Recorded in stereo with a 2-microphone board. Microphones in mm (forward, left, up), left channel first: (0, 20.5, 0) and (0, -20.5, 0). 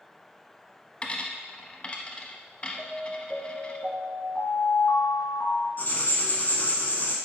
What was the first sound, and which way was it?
A dropped coin, 25° left (ahead or behind).